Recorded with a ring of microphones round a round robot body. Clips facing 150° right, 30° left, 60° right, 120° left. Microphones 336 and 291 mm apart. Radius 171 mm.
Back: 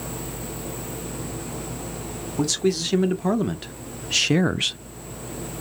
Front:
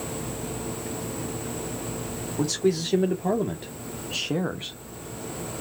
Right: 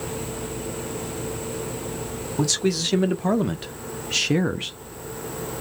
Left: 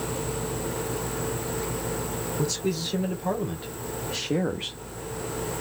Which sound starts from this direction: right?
A man speaking, at 2.4 s.